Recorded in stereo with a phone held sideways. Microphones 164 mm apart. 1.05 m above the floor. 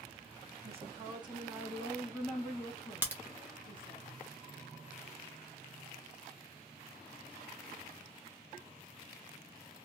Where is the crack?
10° right (ahead or behind), 0.7 m.